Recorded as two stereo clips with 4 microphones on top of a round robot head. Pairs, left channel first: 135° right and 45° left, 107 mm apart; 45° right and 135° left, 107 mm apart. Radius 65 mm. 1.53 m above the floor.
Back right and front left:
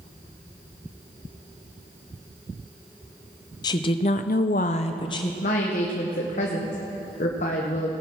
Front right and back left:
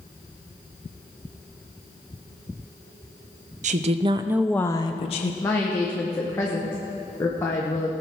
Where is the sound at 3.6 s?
165° left, 0.9 m; by 5.3 s 80° right, 0.9 m.